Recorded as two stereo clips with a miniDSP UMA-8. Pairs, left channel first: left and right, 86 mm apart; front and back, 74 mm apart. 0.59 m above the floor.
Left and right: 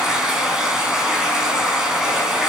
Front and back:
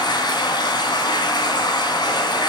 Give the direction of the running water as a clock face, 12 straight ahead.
12 o'clock.